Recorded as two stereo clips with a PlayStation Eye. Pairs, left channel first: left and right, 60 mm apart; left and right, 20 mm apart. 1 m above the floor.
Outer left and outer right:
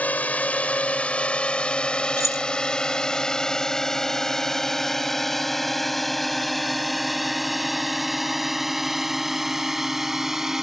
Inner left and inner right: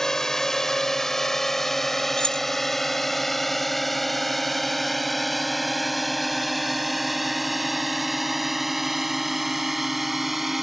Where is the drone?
25° left (ahead or behind); by 10.6 s 5° right (ahead or behind).